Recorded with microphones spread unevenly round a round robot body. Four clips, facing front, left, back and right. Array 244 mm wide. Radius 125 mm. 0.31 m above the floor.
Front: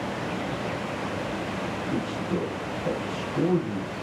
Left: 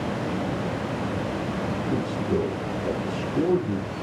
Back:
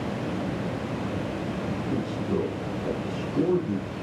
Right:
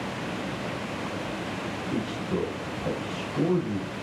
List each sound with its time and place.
1.9 s a man speaking: 115° left, 5 m